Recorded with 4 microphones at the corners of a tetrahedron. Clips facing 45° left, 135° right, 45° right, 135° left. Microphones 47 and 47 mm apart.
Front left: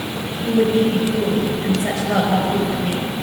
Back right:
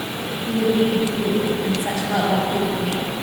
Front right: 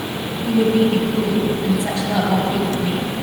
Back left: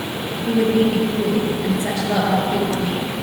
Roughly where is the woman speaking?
Left.